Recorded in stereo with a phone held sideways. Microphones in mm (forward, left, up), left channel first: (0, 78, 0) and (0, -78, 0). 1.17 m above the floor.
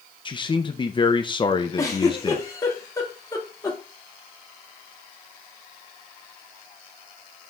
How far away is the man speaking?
About 0.7 m.